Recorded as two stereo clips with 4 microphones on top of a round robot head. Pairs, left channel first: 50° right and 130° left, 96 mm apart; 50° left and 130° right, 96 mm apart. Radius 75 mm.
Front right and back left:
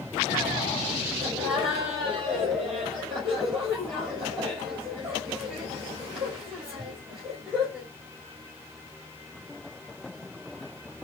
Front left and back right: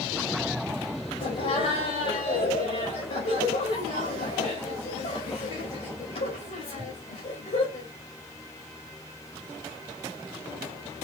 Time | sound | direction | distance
1.2 | laughter | 45° left | 4.5 m